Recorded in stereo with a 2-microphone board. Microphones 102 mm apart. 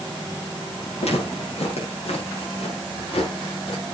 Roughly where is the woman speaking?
No woman speaking in this recording.